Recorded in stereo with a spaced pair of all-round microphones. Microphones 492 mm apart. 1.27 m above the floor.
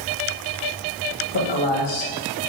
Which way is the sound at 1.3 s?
70° left (ahead or behind).